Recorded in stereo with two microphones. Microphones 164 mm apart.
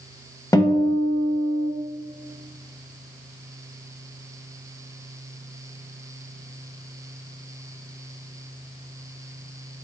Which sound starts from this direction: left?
A guitar, at 0.5 s.